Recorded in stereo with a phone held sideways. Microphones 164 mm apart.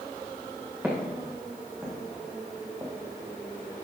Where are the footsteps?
10° right (ahead or behind), 6 m; by 2.9 s 20° right (ahead or behind), 3.5 m.